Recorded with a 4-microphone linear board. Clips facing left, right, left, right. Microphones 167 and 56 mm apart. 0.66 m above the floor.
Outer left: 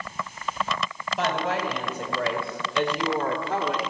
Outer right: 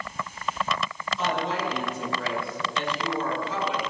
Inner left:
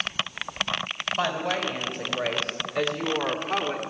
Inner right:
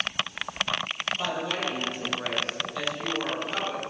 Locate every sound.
1.2 s a woman speaking: 75° left (ahead or behind), 3 m; by 3.8 s 60° left (ahead or behind), 1.8 m